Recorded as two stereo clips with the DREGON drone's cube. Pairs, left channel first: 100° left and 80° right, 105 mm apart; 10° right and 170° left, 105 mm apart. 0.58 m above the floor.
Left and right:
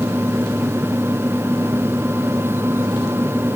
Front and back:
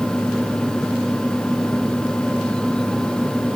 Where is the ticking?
No ticking in this recording.